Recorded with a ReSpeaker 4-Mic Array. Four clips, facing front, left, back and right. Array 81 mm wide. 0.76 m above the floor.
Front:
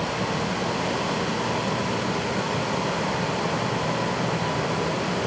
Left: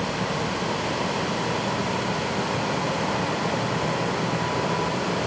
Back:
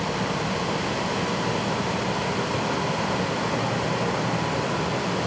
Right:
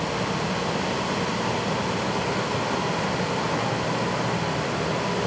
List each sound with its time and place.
Only background noise.